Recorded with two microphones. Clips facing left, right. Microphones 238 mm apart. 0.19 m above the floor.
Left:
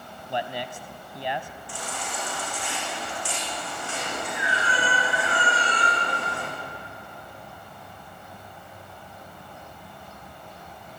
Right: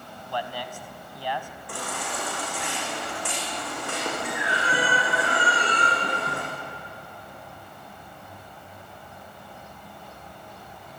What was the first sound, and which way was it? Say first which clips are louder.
A man speaking: left 2 dB; 25° left (ahead or behind).